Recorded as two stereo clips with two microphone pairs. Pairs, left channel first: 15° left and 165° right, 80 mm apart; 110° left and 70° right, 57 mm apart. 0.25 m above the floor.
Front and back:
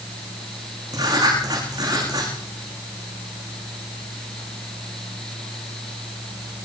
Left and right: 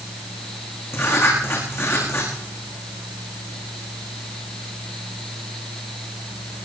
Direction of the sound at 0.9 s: 155° left.